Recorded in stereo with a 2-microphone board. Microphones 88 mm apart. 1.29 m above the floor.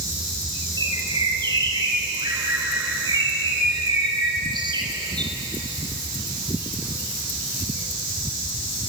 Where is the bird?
55° right (ahead or behind), 4.5 m.